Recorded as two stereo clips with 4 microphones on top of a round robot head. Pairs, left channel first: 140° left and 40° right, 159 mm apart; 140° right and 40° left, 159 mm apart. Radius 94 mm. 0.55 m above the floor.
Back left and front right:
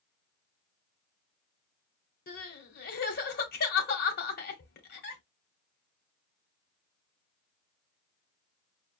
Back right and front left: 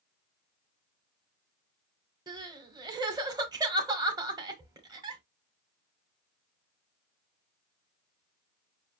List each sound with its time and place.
2.3 s crying: 105° left, 1.2 m